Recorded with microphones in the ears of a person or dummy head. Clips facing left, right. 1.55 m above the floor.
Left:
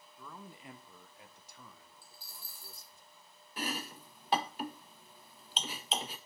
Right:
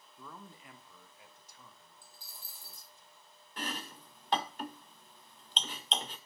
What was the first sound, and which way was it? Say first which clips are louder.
A man speaking: left 1 dB; 15° right (ahead or behind).